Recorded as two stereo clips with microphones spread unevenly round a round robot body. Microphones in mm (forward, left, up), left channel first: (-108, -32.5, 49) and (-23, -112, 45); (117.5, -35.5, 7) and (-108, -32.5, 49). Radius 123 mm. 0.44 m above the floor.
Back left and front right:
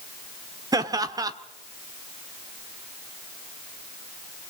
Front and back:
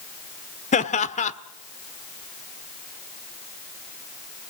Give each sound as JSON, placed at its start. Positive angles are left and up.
{"t": 0.7, "sound": "laughter", "azimuth_deg": -5, "distance_m": 1.4}